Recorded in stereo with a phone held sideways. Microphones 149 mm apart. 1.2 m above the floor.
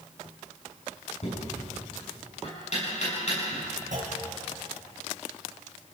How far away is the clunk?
About 5 m.